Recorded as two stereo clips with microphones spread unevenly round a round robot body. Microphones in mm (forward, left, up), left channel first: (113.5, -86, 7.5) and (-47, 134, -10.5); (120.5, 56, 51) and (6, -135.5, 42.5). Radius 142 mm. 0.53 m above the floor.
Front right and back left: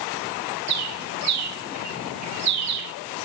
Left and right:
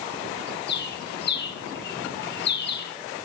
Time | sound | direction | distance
0.7 | a bird | 110° left | 3 m